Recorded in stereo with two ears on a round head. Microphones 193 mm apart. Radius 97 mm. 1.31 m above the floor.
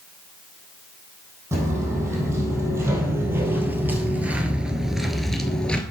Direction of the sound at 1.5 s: 15° right (ahead or behind).